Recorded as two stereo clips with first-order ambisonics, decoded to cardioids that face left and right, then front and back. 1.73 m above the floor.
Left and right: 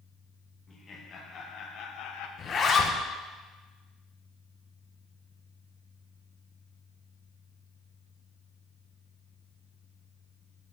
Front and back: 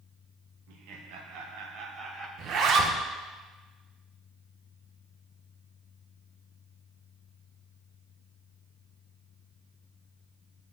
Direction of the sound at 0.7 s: 160° left.